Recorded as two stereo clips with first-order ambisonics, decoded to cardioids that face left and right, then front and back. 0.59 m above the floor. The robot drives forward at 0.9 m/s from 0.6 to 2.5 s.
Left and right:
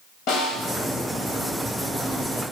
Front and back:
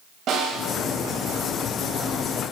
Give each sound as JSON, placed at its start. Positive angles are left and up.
{"t": 0.3, "sound": "a snare drum", "azimuth_deg": 125, "distance_m": 2.5}